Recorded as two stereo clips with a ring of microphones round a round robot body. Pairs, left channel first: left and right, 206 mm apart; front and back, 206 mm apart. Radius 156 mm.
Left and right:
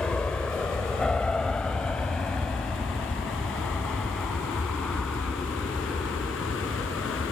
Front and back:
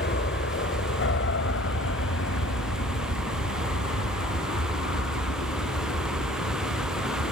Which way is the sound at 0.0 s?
5° left.